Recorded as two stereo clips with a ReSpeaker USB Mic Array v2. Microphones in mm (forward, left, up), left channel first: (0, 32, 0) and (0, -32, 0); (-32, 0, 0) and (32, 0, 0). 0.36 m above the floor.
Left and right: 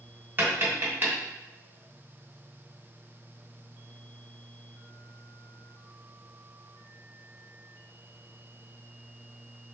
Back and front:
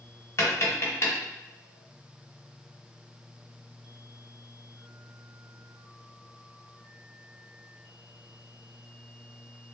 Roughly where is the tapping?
Behind right.